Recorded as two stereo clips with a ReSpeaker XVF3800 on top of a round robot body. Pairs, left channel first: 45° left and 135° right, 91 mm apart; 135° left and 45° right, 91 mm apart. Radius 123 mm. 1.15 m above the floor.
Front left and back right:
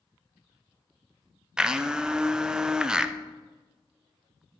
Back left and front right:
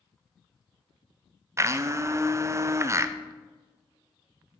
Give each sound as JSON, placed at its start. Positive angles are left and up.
{"t": 1.6, "sound": "a blender", "azimuth_deg": -60, "distance_m": 0.6}